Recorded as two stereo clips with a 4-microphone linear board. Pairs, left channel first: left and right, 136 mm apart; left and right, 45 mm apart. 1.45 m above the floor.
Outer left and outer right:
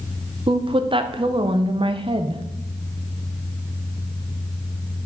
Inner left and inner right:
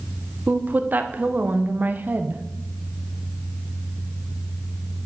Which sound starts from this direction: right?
A woman speaking, at 0.5 s.